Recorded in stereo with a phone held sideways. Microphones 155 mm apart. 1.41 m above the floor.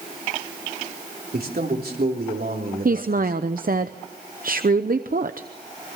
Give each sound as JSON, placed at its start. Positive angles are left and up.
{"t": 1.3, "sound": "a man speaking", "side_deg": -80, "distance_m": 3.5}
{"t": 2.9, "sound": "a woman speaking", "side_deg": -65, "distance_m": 0.8}